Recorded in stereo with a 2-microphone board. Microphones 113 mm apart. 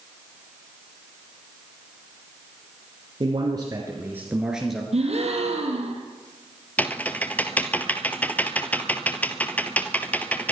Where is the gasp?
70° right (ahead or behind), 4 m.